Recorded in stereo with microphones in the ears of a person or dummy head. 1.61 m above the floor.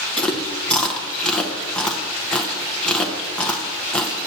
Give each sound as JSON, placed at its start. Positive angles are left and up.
{"t": 0.2, "sound": "chewing", "side_deg": 5, "distance_m": 0.7}